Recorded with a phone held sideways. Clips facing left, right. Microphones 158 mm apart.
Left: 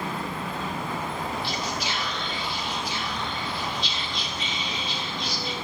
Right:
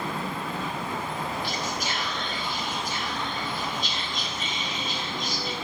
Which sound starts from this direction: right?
Whispering, at 1.4 s.